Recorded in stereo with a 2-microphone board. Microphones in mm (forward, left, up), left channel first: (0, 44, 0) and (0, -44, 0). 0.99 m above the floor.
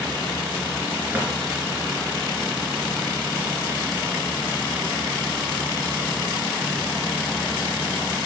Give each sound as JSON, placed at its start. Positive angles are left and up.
{"t": 1.1, "sound": "a drawer", "side_deg": -20, "distance_m": 3.0}